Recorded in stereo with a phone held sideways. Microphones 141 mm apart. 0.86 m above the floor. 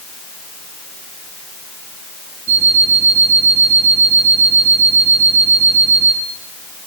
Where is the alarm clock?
10° right (ahead or behind), 8 m.